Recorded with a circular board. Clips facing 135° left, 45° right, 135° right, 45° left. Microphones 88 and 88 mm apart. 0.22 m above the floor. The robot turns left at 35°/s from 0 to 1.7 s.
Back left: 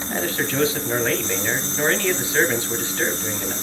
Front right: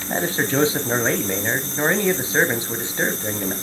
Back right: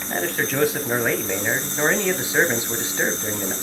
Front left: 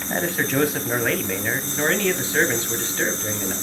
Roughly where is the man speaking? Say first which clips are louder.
Front right 3 dB, front left 1 dB; ahead right.